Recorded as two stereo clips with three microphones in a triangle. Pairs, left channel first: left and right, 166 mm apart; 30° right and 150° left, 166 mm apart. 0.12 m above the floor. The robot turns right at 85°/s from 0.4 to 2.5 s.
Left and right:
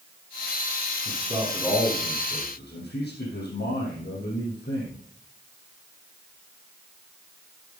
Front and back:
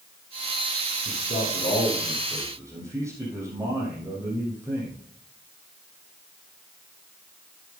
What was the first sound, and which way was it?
A man speaking, 45° right.